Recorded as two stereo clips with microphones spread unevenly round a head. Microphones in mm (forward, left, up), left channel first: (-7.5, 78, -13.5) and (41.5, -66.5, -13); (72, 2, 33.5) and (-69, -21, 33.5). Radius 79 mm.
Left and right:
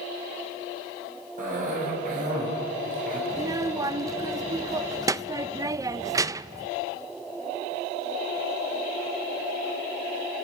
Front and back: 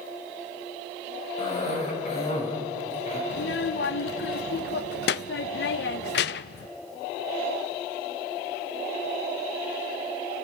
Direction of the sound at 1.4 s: 35° right.